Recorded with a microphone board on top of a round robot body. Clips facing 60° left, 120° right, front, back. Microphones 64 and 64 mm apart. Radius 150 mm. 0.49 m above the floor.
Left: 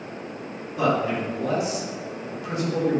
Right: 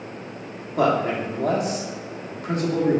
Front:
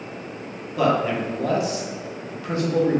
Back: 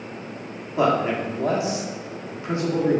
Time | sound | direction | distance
0.8 | a man speaking | 120° right | 1.4 m